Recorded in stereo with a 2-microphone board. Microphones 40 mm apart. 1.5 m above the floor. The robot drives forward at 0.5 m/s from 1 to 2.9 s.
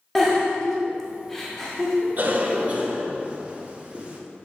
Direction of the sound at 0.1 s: 10° left (ahead or behind).